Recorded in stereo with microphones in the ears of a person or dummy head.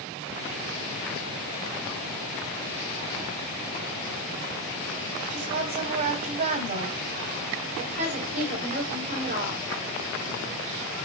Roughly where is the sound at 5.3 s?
Right.